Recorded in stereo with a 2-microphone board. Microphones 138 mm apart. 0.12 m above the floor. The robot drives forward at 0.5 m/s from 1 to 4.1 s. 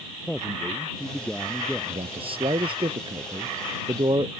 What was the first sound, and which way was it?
A man speaking, 5° left (ahead or behind).